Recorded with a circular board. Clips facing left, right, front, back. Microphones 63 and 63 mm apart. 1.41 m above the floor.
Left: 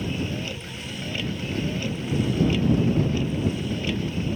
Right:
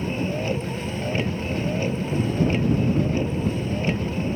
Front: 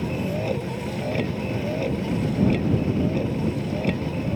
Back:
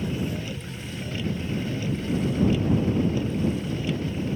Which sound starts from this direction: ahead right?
A vehicle, at 0.0 s.